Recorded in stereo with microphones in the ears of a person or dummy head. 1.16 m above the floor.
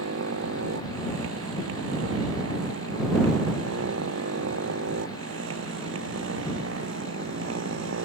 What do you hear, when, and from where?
0.0 s a motorcycle: 90° right; by 8.1 s 85° right